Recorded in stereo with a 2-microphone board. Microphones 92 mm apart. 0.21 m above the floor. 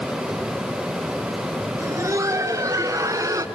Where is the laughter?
35° right (ahead or behind), 4 m; by 3.5 s 40° right (ahead or behind), 2.5 m.